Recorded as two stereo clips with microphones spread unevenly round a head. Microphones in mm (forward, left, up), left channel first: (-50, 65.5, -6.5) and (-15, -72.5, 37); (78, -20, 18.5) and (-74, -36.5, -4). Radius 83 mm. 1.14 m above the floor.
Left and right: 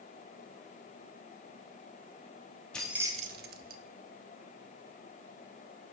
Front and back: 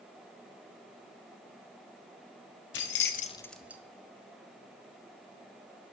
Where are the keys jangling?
15° left, 1.0 m; by 3.8 s 95° right, 1.0 m.